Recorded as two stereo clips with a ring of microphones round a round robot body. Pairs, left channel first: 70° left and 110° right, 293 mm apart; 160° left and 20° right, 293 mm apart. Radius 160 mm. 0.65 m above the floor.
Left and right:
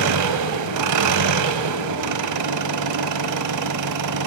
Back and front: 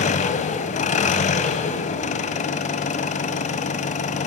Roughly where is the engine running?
Behind right.